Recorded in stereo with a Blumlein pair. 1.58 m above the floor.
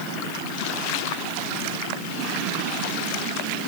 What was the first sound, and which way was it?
Only background noise.